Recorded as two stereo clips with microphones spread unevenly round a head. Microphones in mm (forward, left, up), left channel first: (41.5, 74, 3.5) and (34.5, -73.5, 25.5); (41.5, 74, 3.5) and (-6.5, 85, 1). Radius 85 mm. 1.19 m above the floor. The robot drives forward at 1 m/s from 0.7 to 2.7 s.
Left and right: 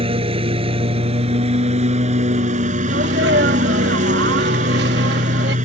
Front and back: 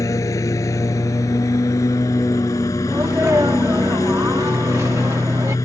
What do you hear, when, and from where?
0.0 s a lawn mower: 45° right; by 5.7 s 60° right
2.9 s a sneeze: 125° right